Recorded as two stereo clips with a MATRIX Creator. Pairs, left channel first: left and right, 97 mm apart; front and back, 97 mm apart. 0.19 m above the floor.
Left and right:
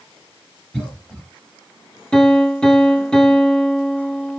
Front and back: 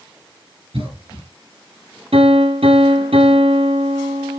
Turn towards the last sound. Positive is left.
turn(degrees=170)